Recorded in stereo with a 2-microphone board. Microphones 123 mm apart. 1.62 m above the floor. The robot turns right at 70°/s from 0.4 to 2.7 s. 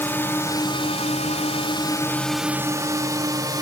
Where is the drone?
20° left (ahead or behind); by 3.6 s 35° right (ahead or behind).